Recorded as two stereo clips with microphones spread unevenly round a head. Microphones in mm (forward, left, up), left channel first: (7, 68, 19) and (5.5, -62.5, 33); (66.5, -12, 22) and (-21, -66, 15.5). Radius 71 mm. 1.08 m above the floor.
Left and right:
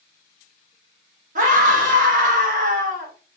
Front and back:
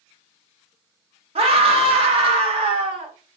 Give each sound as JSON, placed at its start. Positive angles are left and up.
{"t": 1.4, "sound": "a scream", "azimuth_deg": -125, "distance_m": 1.4}